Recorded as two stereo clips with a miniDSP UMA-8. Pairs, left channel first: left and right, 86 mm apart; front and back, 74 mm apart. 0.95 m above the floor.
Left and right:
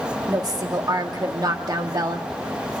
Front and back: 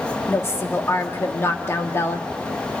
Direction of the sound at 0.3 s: 50° right.